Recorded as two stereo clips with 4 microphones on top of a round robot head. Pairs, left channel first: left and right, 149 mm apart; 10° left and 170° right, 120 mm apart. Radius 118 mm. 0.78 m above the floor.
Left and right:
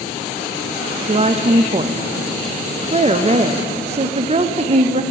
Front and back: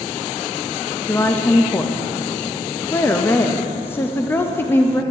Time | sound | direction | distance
1.1 | a woman speaking | 55° right | 0.5 m